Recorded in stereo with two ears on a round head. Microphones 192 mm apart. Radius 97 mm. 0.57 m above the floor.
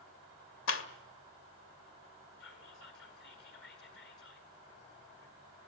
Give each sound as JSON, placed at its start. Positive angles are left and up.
{"t": 0.7, "sound": "a clap", "side_deg": 60, "distance_m": 2.0}
{"t": 2.4, "sound": "whispering", "side_deg": 55, "distance_m": 9.5}